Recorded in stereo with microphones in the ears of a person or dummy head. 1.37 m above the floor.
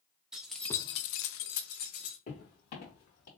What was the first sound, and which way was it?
Keys jangling, 5° right (ahead or behind).